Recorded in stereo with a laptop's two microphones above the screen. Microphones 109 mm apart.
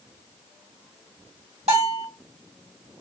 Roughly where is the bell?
Right.